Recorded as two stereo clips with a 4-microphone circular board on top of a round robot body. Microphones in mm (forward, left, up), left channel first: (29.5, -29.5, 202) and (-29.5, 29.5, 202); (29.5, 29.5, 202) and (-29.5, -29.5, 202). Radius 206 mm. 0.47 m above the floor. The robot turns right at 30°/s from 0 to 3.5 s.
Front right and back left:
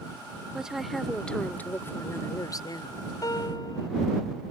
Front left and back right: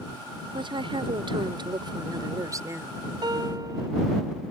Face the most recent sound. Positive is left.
turn(degrees=-85)